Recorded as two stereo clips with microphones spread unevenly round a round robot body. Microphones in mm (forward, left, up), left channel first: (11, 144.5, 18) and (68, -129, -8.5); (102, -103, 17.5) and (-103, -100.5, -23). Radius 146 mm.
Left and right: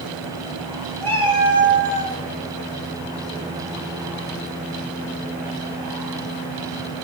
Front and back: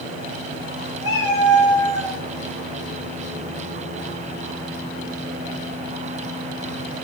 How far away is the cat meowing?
About 3 m.